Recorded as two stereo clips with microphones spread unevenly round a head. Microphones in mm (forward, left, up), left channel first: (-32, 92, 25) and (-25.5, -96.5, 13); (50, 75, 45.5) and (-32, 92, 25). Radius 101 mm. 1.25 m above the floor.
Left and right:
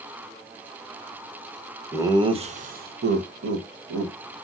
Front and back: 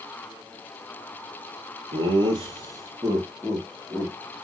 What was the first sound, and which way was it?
Laughter, 165° right.